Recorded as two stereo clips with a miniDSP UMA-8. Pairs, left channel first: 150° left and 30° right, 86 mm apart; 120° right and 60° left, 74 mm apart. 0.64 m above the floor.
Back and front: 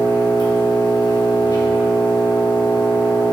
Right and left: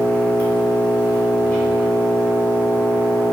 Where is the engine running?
175° left, 1.4 m.